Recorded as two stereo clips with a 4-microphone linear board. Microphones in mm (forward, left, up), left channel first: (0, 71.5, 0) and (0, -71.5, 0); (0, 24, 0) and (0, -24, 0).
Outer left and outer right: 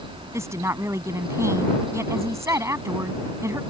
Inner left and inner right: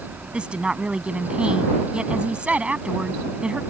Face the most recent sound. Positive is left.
turn(degrees=-20)  # may be behind; listen again after turning